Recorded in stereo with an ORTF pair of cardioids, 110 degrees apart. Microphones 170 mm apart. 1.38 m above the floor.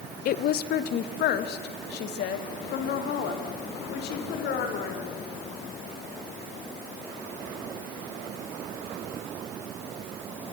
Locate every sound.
0.2 s a woman speaking: 60° left, 1.0 m; by 5.2 s 75° left, 5 m